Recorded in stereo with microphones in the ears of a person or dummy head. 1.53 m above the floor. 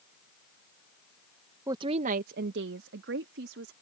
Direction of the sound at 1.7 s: 20° right (ahead or behind).